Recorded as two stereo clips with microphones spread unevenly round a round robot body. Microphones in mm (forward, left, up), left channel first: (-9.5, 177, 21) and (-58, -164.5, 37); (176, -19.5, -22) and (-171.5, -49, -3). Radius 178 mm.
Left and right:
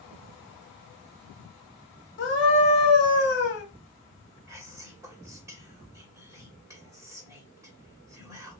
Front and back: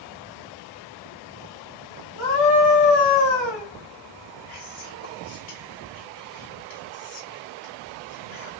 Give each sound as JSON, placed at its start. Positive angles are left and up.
{"t": 2.2, "sound": "a scream", "azimuth_deg": 25, "distance_m": 2.5}
{"t": 4.5, "sound": "whispering", "azimuth_deg": -15, "distance_m": 2.0}